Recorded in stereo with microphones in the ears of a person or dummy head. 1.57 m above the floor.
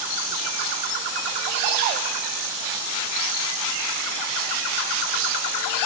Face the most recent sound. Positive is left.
No sound to turn to.